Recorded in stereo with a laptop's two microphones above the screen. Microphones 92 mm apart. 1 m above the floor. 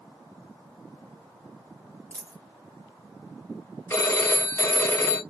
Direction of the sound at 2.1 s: 20° left (ahead or behind).